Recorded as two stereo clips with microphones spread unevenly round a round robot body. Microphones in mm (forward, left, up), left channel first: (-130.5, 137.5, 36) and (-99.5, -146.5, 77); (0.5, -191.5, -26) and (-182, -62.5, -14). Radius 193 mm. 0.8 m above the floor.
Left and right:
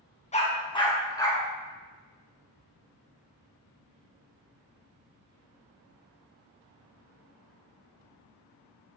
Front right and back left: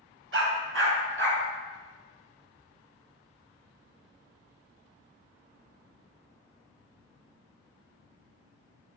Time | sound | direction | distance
0.3 | a dog barking | 165° left | 1.9 m